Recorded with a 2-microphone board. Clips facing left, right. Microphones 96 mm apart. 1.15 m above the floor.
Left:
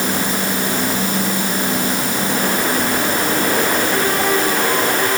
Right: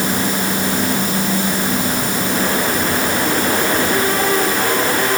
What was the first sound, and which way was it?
Only background noise.